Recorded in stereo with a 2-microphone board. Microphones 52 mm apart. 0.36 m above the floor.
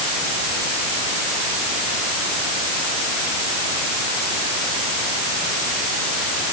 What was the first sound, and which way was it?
Only background noise.